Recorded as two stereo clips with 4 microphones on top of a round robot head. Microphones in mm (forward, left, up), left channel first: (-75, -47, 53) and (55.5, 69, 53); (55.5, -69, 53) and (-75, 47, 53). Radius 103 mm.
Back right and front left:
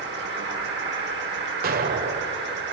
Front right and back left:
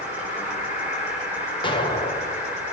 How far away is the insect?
About 7.5 m.